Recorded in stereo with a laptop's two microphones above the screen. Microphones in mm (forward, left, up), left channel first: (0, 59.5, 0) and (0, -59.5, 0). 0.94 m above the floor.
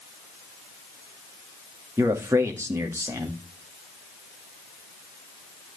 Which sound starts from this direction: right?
A man speaking, at 2.0 s.